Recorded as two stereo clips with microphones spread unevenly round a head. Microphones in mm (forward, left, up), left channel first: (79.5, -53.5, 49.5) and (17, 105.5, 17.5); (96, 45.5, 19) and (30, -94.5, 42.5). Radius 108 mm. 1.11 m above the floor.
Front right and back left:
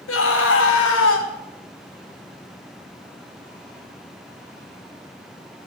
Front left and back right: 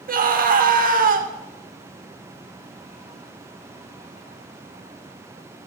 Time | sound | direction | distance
0.1 | a scream | 85° right | 2.5 m